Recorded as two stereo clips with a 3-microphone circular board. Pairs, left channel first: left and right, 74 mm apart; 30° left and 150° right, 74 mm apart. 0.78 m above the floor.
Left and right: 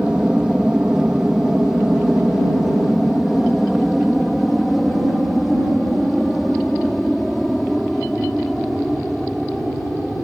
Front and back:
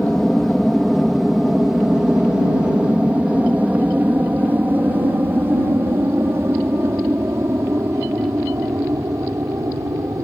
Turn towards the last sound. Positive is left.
turn(degrees=175)